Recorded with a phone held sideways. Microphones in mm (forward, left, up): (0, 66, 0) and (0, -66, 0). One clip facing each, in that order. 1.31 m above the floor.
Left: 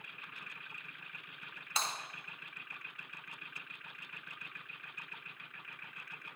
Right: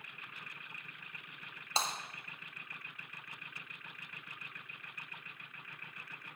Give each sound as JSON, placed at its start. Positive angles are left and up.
{"t": 1.8, "sound": "breaking glass", "side_deg": -35, "distance_m": 4.0}